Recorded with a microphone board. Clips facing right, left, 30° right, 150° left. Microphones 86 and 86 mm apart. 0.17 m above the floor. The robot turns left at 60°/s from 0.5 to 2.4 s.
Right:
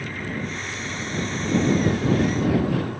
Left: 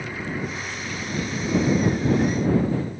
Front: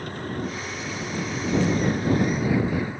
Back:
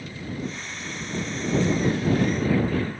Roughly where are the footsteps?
No footsteps in this recording.